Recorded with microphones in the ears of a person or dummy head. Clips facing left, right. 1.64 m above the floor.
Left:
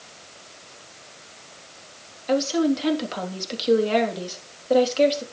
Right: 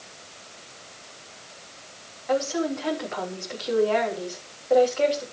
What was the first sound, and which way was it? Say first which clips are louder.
A woman speaking: left 4 dB; 50° left (ahead or behind).